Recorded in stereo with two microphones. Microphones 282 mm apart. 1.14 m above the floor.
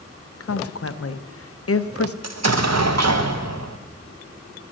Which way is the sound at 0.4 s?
55° left (ahead or behind).